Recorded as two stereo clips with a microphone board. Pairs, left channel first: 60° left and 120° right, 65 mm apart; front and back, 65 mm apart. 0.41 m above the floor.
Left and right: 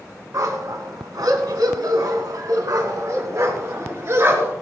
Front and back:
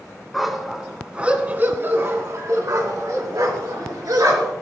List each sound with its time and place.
0.3 s a dog barking: 90° right, 2 m; by 4.5 s 165° right, 3.5 m